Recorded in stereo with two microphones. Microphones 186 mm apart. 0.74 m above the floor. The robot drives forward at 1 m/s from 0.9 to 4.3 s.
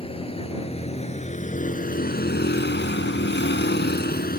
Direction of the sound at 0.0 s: 30° left (ahead or behind).